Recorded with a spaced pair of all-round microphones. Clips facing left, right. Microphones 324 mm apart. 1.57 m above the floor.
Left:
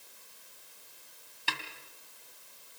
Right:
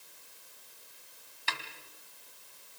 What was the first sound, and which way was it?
A snare drum, 40° left (ahead or behind).